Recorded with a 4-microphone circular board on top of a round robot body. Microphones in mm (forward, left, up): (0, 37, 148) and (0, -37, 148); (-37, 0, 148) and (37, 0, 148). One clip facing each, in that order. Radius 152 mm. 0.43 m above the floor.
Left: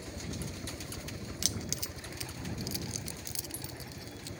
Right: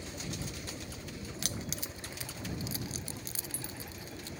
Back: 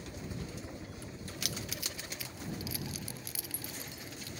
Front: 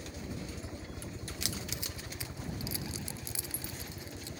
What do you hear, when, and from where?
0.0 s a helicopter: 140° left; by 4.4 s 30° left
1.4 s keys jangling: 55° right